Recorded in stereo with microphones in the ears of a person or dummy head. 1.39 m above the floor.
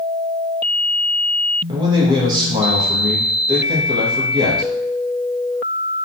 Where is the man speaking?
25° right (ahead or behind), 0.8 m.